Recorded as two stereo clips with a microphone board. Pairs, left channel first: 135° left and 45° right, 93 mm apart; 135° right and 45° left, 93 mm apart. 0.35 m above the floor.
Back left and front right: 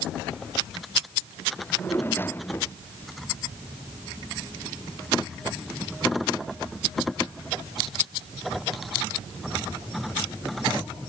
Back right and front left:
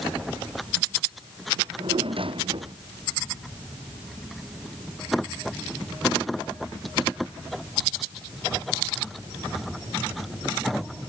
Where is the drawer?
70° left.